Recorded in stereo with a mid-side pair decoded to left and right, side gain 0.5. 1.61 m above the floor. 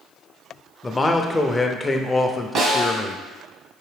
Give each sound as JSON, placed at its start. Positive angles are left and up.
{"t": 0.8, "sound": "a man speaking", "azimuth_deg": 20, "distance_m": 0.6}
{"t": 2.5, "sound": "a snare drum", "azimuth_deg": -60, "distance_m": 1.0}